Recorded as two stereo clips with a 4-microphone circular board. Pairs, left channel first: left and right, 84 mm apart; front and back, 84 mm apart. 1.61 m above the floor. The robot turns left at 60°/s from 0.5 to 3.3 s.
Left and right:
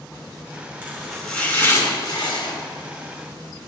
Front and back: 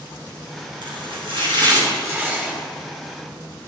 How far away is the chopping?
About 5.5 m.